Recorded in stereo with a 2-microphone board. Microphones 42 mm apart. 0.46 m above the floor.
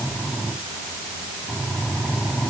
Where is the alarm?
No alarm in this recording.